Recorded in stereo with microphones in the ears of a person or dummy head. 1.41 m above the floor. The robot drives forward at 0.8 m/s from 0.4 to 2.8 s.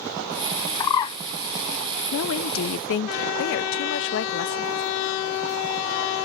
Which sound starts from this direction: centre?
A bird, at 0.8 s.